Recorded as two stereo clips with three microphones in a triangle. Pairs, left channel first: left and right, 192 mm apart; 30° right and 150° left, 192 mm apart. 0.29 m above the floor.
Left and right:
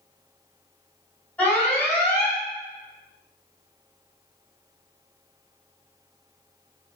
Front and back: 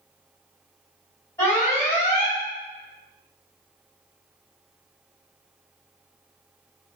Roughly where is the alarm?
Ahead.